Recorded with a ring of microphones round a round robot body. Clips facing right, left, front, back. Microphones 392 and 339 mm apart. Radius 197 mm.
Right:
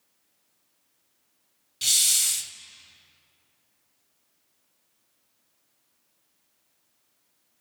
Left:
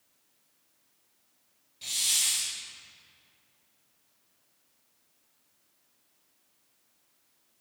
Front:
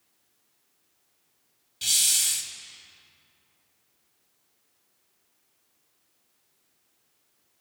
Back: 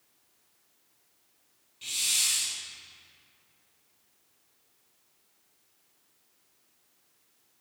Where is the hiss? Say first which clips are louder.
Right 2 dB, front 1 dB; 40° right, 0.5 m.